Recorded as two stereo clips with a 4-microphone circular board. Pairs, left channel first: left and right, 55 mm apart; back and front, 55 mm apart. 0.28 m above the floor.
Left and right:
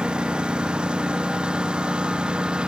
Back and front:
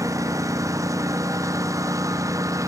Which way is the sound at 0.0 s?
15° right.